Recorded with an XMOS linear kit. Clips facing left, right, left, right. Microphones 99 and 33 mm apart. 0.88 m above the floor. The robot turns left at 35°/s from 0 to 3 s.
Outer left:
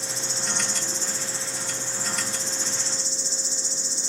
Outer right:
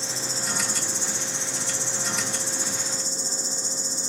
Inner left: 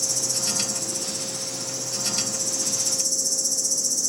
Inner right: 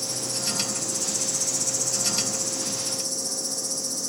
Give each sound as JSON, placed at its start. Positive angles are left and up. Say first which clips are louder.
{"t": 0.0, "sound": "an insect", "louder": "outer right 1 dB, inner left 2 dB", "azimuth_deg": -30, "distance_m": 2.5}